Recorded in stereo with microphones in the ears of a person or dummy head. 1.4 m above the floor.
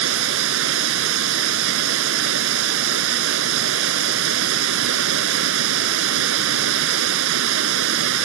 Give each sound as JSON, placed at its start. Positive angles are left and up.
{"t": 0.0, "sound": "running water", "side_deg": -65}